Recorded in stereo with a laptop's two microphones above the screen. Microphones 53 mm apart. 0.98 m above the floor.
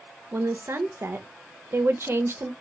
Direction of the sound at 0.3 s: 50° right (ahead or behind).